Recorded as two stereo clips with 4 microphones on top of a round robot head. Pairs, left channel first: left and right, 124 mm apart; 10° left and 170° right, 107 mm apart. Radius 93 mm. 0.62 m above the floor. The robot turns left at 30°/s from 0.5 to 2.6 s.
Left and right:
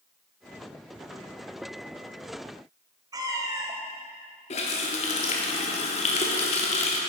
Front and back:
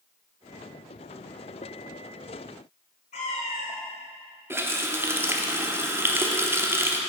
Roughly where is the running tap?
Behind left.